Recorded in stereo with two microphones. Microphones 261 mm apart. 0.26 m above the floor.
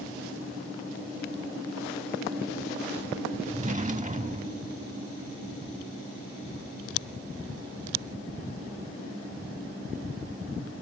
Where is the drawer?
30° right (ahead or behind).